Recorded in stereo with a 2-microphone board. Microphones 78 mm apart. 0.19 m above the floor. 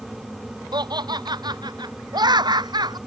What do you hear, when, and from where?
0.7 s laughter: 60° right (ahead or behind)